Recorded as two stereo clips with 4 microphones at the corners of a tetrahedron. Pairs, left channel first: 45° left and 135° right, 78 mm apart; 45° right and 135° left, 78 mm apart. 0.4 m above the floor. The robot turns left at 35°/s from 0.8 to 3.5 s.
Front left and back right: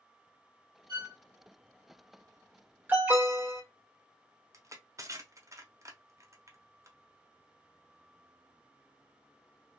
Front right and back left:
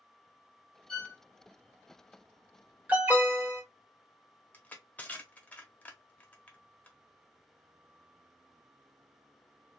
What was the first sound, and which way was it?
A violin, 120° right.